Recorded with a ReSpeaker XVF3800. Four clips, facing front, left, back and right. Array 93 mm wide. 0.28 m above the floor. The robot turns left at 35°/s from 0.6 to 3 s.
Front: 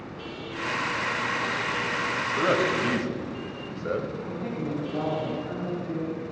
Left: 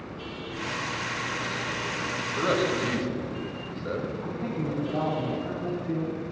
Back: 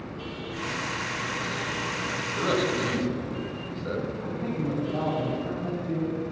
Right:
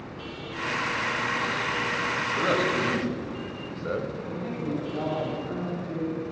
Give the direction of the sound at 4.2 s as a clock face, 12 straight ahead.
8 o'clock.